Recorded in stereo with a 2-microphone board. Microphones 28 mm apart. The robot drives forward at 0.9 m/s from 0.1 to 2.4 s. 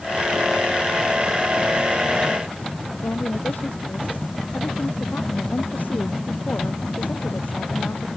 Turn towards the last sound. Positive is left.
turn(degrees=75)  # may be behind; listen again after turning